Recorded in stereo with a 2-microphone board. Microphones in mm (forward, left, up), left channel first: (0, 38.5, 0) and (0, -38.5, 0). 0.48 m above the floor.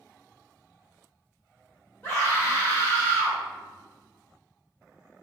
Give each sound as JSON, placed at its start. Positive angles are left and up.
{"t": 2.0, "sound": "a scream", "side_deg": 20, "distance_m": 1.7}